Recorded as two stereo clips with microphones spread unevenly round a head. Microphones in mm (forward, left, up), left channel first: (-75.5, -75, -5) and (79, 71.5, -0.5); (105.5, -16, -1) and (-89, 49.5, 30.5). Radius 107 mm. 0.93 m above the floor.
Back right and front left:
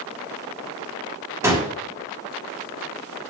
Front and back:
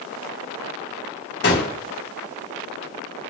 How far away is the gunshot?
About 1.3 m.